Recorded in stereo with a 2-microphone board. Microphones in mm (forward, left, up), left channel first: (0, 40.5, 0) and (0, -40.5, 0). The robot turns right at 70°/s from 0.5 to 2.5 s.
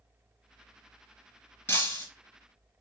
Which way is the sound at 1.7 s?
30° left (ahead or behind).